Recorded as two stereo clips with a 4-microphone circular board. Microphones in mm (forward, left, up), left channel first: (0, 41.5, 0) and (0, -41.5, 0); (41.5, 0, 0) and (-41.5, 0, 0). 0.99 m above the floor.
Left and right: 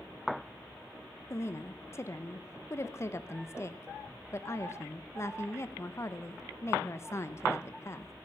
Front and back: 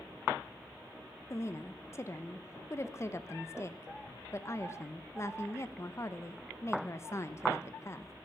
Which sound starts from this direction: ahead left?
A woman speaking, at 1.3 s.